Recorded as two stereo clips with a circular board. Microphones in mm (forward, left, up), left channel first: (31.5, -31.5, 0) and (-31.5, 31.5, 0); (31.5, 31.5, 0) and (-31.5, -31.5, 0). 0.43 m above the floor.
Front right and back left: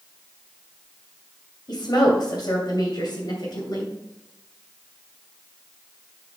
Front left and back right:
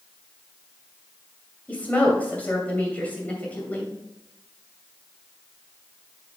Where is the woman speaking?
25° right, 2.5 m.